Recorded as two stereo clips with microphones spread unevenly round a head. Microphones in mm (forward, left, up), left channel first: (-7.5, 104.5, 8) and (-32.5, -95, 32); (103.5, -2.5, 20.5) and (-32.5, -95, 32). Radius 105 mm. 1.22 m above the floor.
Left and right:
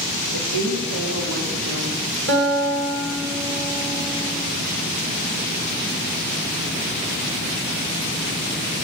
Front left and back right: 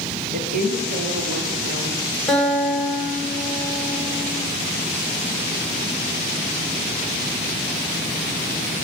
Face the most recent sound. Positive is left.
turn(degrees=-55)